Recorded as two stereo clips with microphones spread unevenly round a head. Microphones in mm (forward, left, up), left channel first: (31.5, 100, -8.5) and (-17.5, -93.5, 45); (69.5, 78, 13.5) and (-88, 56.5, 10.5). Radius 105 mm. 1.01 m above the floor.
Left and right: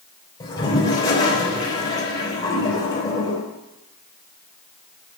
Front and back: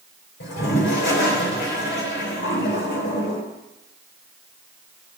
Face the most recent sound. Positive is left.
turn(degrees=5)